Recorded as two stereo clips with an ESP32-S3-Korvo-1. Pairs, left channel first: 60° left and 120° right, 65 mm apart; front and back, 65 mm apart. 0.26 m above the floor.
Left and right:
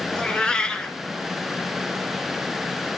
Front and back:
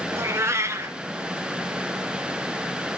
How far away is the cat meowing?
About 1.9 m.